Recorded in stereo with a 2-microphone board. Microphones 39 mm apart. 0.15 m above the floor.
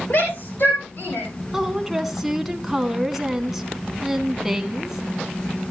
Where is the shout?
60° left (ahead or behind), 7.5 m; by 1.3 s 55° left (ahead or behind), 8.5 m.